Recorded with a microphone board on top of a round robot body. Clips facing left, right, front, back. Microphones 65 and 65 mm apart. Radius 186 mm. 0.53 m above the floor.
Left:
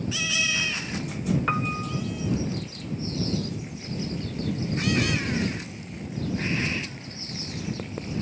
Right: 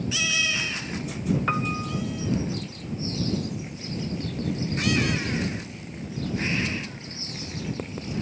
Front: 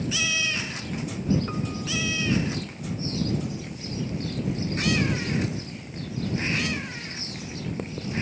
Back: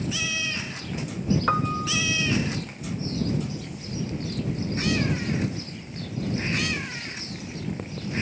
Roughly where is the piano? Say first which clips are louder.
Even, back 6 dB; behind.